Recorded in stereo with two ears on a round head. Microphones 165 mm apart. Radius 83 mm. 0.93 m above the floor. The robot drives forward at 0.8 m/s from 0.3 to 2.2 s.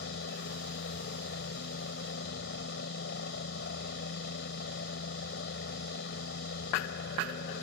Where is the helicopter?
65° left (ahead or behind); by 7.6 s 60° left (ahead or behind).